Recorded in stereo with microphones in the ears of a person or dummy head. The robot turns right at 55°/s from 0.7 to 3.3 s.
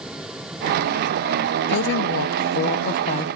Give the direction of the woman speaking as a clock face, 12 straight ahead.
10 o'clock.